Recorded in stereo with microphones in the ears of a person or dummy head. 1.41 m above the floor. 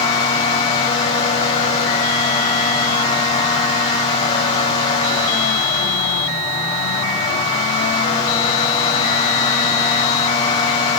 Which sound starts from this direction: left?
A fan, at 0.0 s.